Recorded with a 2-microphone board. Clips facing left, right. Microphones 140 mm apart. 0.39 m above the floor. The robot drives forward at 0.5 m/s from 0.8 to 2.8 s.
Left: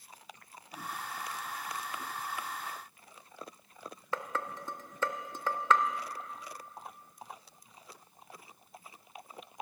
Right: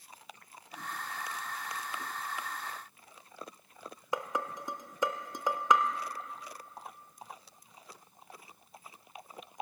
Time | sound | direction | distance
4.1 | dishes clattering | 15° right (ahead or behind) | 0.5 m